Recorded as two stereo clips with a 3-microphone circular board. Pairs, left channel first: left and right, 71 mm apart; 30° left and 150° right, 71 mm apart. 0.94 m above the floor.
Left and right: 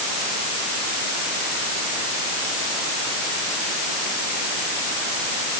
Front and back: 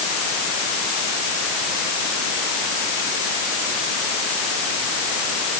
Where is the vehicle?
I don't hear a vehicle.